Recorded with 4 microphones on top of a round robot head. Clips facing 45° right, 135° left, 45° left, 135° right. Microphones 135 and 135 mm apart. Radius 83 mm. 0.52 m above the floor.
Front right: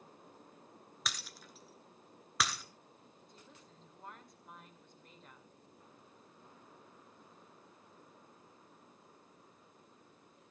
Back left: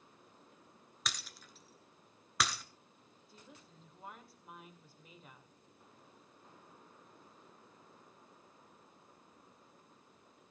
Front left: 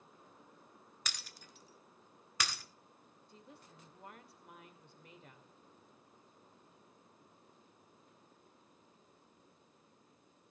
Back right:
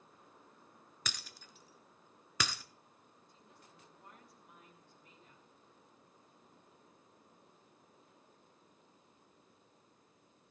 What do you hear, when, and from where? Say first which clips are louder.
1.1 s breaking glass: even, back right 3 dB; 135° right, 1.1 m
3.3 s a woman speaking: back left 4 dB, front left 7 dB; 50° left, 2 m